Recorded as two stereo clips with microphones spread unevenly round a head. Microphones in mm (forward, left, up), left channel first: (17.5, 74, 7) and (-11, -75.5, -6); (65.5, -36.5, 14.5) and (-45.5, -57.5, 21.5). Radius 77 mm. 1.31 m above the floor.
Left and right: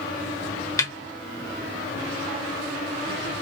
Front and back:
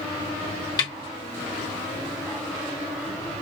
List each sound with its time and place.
0.8 s a snare drum: 40° left, 1.1 m